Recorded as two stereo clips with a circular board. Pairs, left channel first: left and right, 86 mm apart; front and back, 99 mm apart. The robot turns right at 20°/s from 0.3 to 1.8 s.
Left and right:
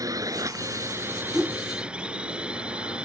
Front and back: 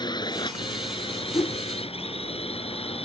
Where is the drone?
40° right; by 3.1 s 10° right.